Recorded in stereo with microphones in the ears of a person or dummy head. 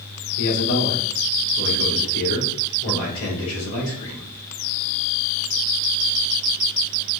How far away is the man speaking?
About 2.5 m.